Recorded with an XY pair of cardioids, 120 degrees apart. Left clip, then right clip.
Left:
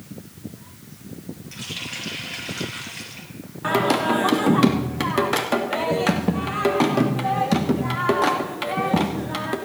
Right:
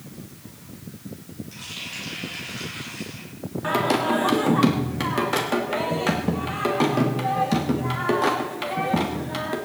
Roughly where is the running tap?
Ahead left.